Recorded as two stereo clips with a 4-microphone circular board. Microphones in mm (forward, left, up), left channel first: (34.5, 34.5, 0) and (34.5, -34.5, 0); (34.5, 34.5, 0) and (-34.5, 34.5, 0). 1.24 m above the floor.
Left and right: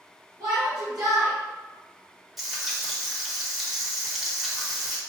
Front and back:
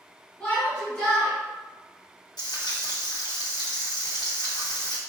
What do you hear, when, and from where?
0.4 s a shout: 75° right, 1.4 m
2.4 s frying: straight ahead, 1.2 m